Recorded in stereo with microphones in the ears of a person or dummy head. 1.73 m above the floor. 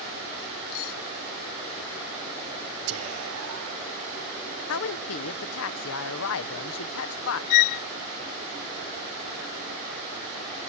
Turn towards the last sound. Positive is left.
turn(degrees=65)  # may be behind; listen again after turning